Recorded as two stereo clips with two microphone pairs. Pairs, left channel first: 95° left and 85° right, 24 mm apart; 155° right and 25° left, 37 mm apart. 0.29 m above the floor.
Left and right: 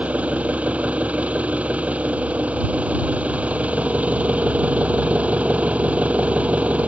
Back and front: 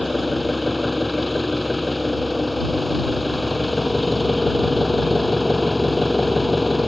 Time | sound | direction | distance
0.0 | an engine running | 65° right | ?